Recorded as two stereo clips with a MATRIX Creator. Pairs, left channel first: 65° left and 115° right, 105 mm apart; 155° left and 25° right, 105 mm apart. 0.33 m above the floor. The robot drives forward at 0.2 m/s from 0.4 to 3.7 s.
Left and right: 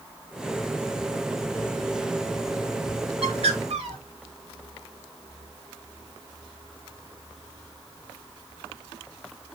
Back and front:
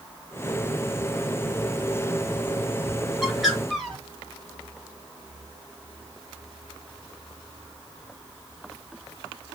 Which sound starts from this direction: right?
A bird, at 3.2 s.